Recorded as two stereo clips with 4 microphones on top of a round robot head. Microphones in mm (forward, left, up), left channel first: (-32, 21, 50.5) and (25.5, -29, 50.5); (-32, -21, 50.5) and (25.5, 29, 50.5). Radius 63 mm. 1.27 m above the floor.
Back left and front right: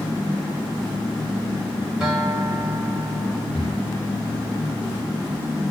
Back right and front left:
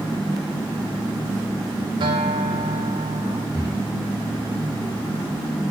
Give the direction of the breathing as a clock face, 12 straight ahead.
12 o'clock.